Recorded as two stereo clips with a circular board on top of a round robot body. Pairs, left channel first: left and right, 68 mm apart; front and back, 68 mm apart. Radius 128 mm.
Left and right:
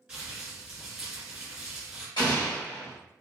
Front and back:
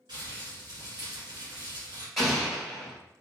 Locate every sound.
0.1 s crumpling: 170° right, 1.9 m
2.2 s an explosion: 90° left, 1.6 m